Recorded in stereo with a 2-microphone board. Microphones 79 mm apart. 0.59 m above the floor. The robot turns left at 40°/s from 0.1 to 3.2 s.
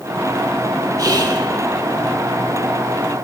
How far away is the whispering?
About 1.5 m.